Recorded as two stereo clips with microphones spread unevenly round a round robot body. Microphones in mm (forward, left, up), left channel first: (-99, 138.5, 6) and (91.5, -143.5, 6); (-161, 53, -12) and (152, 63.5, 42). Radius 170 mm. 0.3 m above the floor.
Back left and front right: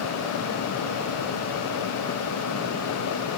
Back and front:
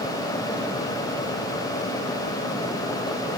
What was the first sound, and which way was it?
Only background noise.